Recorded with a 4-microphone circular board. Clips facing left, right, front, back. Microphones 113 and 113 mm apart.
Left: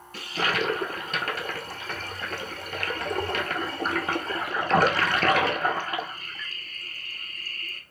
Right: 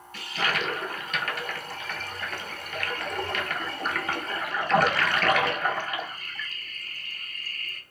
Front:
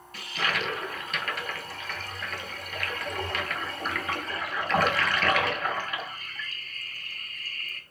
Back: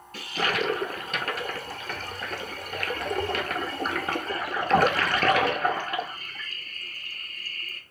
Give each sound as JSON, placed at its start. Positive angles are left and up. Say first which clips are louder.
{"t": 0.1, "sound": "a toilet flushing", "louder": "left 2 dB, back 3 dB", "azimuth_deg": 135, "distance_m": 0.5}